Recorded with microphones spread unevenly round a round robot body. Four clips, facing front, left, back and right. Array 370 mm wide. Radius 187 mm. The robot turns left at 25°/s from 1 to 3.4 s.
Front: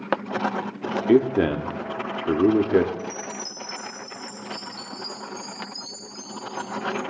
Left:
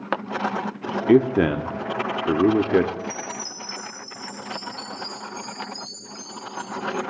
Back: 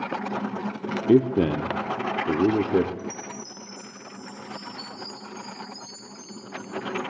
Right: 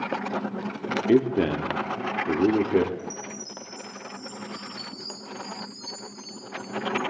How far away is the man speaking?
About 0.9 m.